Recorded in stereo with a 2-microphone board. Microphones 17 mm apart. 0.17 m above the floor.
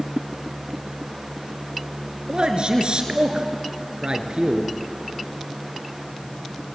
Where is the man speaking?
55° right (ahead or behind), 3 m.